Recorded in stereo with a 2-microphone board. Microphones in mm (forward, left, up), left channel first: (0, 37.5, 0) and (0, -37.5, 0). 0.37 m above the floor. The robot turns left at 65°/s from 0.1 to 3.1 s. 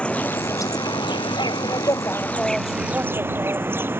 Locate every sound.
0.0 s an insect: 165° left; by 4.0 s 30° right